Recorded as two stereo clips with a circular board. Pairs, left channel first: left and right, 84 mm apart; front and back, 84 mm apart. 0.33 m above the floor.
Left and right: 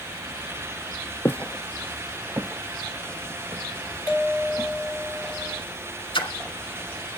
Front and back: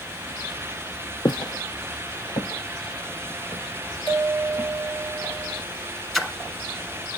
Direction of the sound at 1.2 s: 30° left.